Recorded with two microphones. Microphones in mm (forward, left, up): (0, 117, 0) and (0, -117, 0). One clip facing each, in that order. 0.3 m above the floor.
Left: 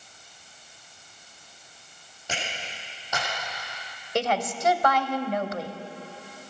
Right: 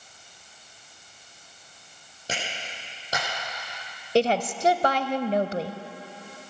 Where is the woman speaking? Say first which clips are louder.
Right 5 dB; 30° right (ahead or behind), 1.0 m.